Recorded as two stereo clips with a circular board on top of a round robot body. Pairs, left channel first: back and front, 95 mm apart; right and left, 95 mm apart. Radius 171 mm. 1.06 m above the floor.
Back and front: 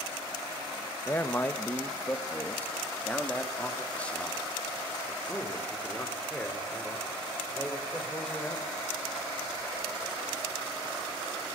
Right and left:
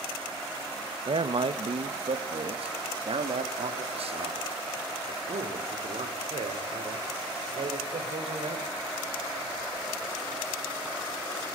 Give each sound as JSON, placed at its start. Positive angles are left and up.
{"t": 1.1, "sound": "a man speaking", "azimuth_deg": 115, "distance_m": 1.7}